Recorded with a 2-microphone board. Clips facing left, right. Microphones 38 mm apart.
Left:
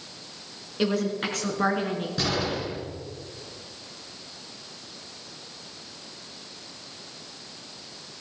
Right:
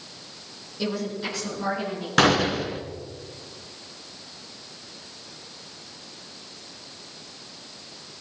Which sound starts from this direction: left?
A woman speaking, at 0.8 s.